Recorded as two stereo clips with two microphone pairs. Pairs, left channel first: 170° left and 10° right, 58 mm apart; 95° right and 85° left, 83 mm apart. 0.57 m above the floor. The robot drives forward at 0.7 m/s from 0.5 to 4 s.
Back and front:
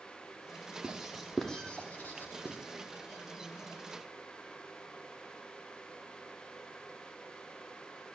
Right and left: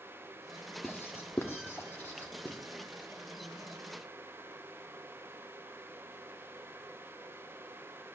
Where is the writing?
65° right, 1.0 m; by 2.6 s 155° right, 1.4 m.